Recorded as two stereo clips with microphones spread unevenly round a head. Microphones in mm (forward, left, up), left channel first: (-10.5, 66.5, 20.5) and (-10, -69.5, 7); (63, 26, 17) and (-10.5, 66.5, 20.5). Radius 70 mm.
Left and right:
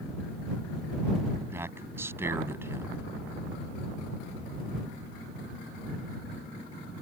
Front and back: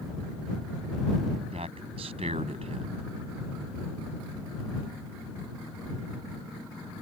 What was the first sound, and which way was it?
A man speaking, 165° right.